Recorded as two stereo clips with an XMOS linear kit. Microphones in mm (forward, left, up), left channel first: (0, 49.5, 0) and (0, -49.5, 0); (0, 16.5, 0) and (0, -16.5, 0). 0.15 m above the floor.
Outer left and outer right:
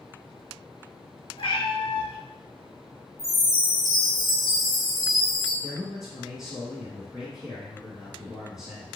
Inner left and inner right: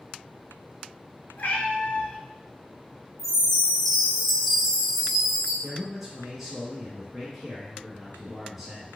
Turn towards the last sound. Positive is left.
turn(degrees=-5)  # may be behind; listen again after turning